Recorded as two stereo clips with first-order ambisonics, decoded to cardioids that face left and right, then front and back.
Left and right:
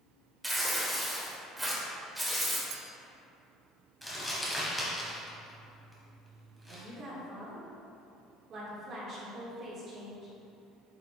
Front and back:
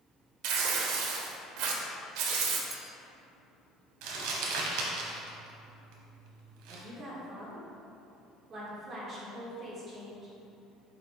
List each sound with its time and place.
0.4 s tearing paper: 175° right, 1.0 m
2.7 s a clink: 105° right, 0.7 m
4.0 s crumpling: 175° left, 1.3 m
6.7 s a woman speaking: 130° right, 1.7 m